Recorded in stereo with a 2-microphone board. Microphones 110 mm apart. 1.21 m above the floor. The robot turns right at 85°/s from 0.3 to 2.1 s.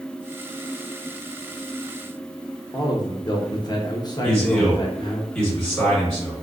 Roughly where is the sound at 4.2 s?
Centre.